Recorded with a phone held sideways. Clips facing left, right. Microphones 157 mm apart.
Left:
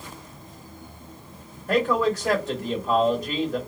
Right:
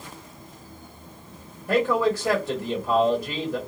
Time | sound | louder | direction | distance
1.7 | a man speaking | even | 10° right (ahead or behind) | 1.5 m